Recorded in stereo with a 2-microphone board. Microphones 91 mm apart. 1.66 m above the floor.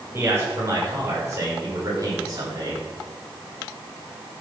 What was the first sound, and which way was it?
A man speaking, 30° right (ahead or behind).